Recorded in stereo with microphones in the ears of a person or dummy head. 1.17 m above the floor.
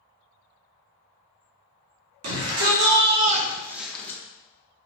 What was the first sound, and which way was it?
A shout, 80° right.